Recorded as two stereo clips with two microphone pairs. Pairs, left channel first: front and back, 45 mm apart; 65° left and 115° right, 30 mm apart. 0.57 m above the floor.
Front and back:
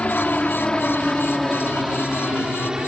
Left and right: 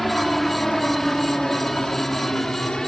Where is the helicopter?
15° right; by 2.9 s 115° left.